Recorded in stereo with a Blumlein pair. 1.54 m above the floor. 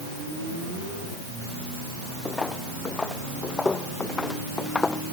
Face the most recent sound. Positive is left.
turn(degrees=15)